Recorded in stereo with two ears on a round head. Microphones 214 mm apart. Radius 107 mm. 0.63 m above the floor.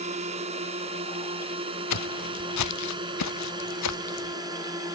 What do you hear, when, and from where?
0.0 s a drone: 30° right (ahead or behind); by 5.0 s 15° right (ahead or behind)
1.9 s footsteps: 75° left (ahead or behind)